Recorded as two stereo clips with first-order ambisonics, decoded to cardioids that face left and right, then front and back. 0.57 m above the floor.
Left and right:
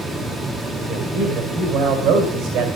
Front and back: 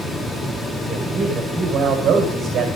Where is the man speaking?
120° right, 2.5 m.